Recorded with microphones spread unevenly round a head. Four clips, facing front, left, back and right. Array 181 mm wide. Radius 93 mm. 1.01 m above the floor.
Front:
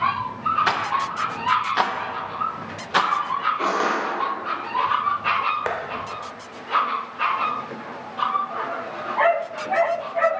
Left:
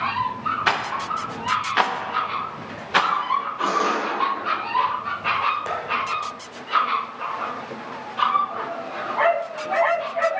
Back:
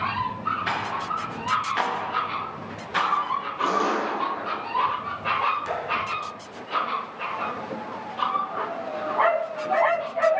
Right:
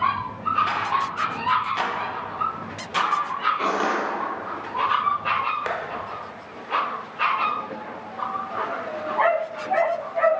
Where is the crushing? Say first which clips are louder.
Left 1 dB, front 1 dB; 25° right, 2.5 m.